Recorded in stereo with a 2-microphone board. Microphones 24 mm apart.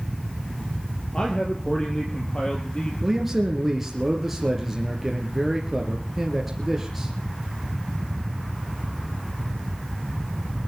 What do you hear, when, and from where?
1.1 s a man speaking: 35° left (ahead or behind), 3.5 m
3.0 s a man speaking: 10° right (ahead or behind), 2.5 m